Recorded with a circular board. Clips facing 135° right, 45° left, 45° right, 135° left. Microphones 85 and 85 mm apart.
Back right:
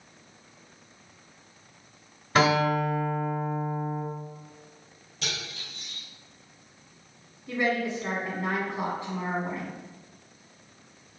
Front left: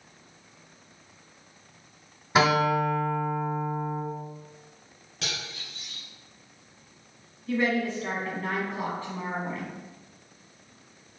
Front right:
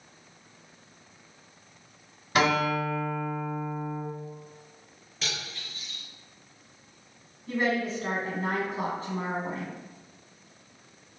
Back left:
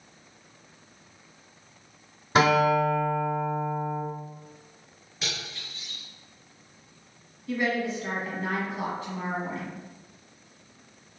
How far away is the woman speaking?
About 1.2 m.